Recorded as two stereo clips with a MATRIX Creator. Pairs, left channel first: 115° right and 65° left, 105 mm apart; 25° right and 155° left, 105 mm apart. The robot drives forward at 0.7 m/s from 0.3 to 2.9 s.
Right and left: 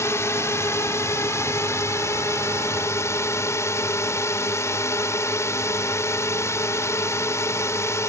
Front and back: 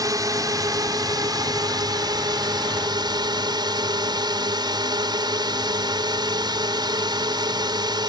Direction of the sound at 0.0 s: 165° right.